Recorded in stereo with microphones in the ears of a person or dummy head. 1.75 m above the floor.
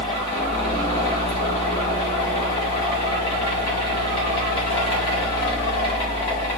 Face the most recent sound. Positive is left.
turn(degrees=40)  # may be behind; listen again after turning